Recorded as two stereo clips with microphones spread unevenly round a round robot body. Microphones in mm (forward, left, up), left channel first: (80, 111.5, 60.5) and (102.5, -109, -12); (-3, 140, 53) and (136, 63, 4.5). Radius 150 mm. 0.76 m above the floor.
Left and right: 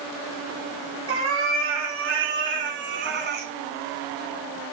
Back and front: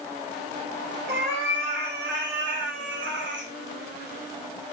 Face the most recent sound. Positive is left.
turn(degrees=-35)